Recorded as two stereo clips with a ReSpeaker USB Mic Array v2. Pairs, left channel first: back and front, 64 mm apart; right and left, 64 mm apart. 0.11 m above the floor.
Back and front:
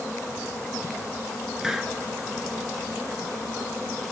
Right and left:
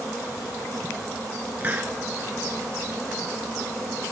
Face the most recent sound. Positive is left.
turn(degrees=75)